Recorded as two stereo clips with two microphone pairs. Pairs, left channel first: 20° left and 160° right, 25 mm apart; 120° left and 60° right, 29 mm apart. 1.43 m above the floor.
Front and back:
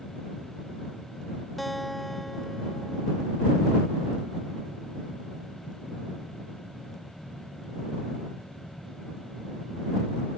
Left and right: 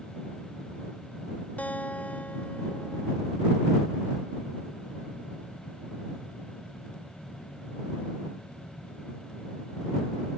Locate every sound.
1.6 s a guitar: 105° left